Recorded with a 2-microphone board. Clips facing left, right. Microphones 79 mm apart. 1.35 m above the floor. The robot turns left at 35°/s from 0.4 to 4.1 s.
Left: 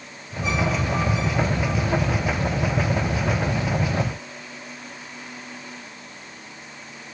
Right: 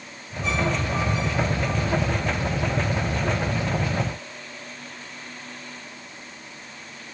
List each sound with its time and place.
Only background noise.